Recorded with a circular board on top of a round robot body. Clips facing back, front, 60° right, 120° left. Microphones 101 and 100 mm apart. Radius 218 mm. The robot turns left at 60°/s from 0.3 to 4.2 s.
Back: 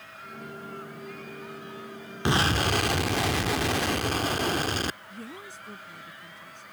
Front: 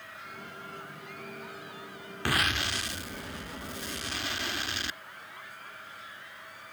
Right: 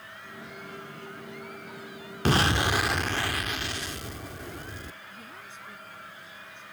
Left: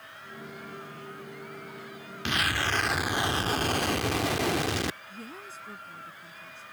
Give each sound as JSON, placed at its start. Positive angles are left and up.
{"t": 2.2, "sound": "an explosion", "azimuth_deg": -110}
{"t": 5.1, "sound": "a woman speaking", "azimuth_deg": 175}